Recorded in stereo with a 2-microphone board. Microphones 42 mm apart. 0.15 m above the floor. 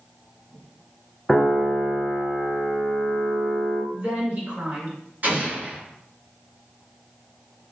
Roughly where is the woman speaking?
Right.